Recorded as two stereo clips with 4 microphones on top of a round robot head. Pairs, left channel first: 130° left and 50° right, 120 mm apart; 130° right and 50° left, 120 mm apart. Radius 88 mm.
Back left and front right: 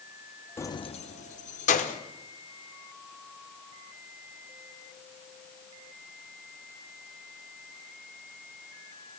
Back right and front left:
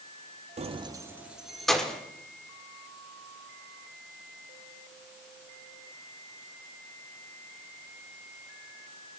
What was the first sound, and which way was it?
Keys jangling, 65° left.